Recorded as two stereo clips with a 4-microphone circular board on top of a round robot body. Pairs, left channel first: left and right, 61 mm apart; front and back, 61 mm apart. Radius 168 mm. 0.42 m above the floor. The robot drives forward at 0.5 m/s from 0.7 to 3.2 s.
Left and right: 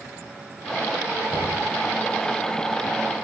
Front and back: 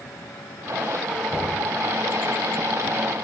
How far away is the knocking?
About 1.9 m.